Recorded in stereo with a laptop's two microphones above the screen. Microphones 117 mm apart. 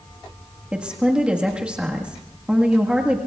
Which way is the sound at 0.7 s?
10° right (ahead or behind).